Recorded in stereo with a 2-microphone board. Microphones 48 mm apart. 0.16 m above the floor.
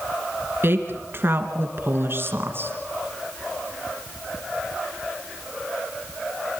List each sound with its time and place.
0.6 s a woman speaking: 50° right (ahead or behind), 2.5 m